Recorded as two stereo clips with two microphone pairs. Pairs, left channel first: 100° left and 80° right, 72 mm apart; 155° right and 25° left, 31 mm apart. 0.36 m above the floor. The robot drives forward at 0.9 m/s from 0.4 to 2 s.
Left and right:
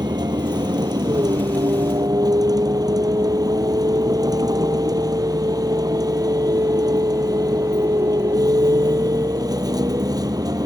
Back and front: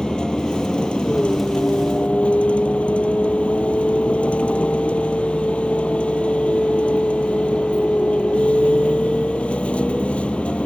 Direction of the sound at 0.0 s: 95° right.